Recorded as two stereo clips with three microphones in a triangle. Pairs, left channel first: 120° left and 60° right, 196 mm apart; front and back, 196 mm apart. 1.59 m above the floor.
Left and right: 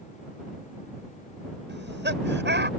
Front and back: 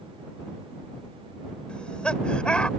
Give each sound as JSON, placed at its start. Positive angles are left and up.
{"t": 1.7, "sound": "laughter", "azimuth_deg": -85}